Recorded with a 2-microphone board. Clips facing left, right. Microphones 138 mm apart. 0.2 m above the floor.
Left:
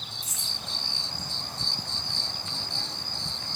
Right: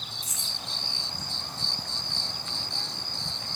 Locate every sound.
0.2 s keys jangling: 45° right (ahead or behind), 1.5 m